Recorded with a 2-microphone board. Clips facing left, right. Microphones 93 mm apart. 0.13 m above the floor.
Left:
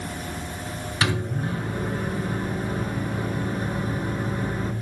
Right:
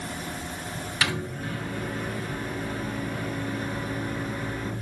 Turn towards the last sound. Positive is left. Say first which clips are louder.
# left 4 dB
turn(degrees=35)  # may be behind; listen again after turning